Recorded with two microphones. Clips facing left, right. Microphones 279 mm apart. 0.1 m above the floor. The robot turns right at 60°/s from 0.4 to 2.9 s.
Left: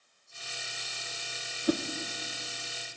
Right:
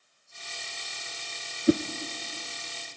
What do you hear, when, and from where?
1.7 s a whoosh: 25° right (ahead or behind), 0.8 m